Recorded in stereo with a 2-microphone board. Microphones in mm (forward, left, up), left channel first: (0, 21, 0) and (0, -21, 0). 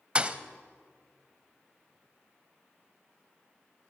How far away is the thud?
About 1.1 m.